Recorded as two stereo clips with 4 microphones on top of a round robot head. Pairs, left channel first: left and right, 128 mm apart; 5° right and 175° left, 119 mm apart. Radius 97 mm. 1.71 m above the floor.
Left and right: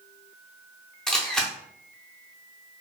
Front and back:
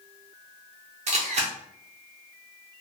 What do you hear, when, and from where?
1.1 s a camera shutter: 175° left, 0.6 m